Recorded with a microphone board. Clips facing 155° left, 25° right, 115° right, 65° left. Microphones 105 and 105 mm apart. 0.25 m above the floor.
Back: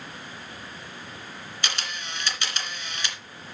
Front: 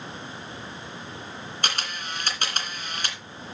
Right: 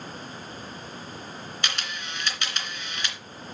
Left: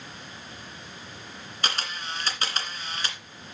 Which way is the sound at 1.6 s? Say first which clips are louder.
Front 2 dB, left 4 dB; 20° left.